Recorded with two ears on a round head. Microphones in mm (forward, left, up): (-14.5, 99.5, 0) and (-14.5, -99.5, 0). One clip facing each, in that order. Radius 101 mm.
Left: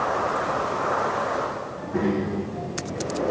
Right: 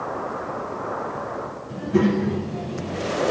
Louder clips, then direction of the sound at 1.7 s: Right 6 dB; 45° right (ahead or behind).